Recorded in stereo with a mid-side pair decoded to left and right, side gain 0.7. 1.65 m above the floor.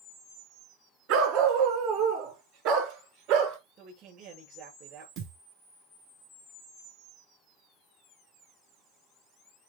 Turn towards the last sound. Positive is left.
turn(degrees=-55)